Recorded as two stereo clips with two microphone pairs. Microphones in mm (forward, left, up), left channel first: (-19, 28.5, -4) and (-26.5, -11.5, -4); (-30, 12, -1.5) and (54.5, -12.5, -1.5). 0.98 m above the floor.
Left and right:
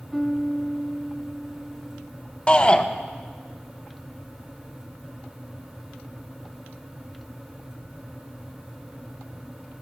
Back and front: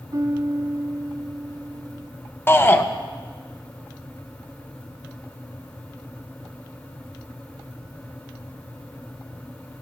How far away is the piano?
About 0.5 m.